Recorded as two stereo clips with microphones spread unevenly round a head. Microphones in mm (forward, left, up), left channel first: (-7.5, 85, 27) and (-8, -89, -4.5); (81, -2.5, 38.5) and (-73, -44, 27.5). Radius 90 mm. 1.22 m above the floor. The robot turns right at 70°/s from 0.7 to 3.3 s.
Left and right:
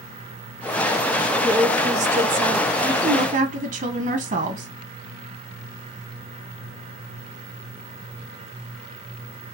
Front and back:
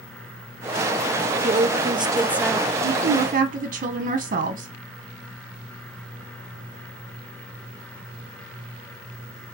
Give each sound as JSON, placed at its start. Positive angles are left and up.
{"t": 1.4, "sound": "a woman speaking", "azimuth_deg": -150, "distance_m": 0.6}
{"t": 2.8, "sound": "a woman speaking", "azimuth_deg": -165, "distance_m": 1.0}